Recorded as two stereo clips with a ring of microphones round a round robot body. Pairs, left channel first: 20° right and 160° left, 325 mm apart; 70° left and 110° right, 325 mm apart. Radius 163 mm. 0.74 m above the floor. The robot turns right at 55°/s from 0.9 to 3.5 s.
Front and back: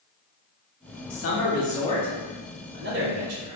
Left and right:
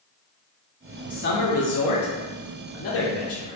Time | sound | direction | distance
1.1 | a man speaking | 10° left | 0.6 m